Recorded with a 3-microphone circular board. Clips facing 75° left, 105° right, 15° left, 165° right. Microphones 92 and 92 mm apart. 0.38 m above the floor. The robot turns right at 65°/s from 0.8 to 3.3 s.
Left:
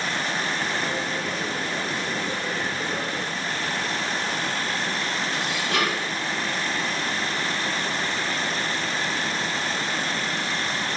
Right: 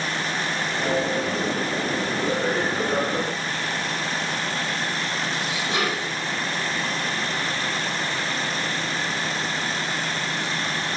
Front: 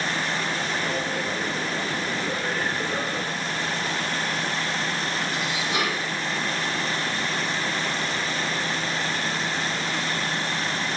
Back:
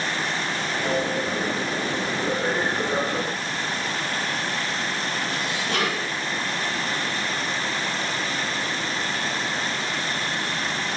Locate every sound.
5.3 s dishes clattering: 170° right, 7.5 m